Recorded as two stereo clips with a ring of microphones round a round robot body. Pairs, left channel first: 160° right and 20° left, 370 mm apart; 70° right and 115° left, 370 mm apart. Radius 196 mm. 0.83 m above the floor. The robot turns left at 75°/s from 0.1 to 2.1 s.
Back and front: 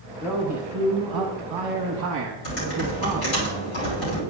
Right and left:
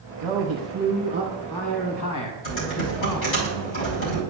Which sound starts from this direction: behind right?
Typing on a keyboard, at 2.4 s.